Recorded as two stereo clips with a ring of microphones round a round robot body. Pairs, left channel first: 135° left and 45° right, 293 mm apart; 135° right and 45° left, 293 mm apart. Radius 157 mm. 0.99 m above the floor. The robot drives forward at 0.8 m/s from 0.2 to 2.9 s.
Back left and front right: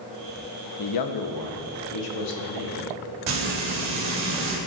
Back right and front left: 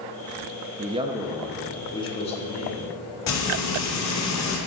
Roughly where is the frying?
Right.